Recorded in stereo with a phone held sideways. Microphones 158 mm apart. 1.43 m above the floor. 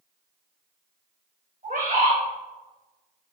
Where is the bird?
60° right (ahead or behind), 2.5 m.